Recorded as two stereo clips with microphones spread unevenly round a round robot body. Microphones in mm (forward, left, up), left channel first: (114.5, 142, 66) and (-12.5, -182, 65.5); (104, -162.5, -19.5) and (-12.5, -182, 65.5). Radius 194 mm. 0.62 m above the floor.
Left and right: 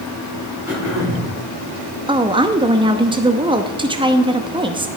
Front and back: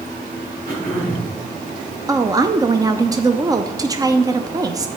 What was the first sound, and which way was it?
Throat clearing, 165° left.